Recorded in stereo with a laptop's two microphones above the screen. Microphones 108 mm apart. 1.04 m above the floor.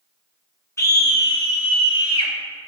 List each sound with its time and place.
0.8 s a scream: 30° left (ahead or behind), 1.3 m; by 2.3 s 55° left (ahead or behind), 2 m